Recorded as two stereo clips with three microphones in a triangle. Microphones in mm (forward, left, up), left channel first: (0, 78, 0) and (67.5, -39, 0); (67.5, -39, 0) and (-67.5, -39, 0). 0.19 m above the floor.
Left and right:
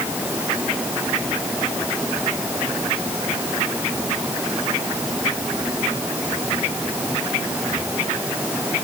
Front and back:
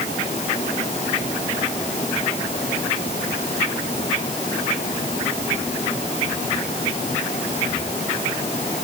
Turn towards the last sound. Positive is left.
No sound to turn to.